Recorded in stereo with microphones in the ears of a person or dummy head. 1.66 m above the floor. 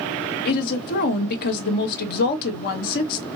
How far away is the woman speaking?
About 1.0 m.